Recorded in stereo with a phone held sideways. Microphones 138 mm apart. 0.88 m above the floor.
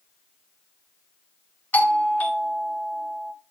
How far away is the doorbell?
About 1.2 m.